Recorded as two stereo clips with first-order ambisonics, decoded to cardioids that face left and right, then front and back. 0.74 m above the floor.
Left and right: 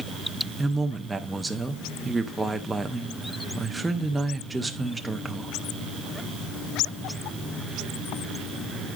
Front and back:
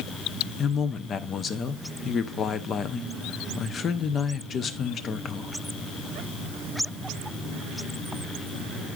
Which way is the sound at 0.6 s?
15° right.